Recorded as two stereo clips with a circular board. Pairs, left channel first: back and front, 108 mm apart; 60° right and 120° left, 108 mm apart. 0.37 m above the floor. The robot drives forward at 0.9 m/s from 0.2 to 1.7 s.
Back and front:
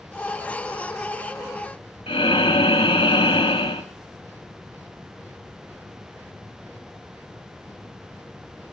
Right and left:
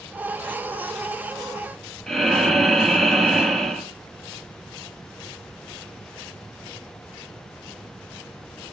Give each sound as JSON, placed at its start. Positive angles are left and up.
{"t": 2.1, "sound": "breathing", "azimuth_deg": -145, "distance_m": 2.5}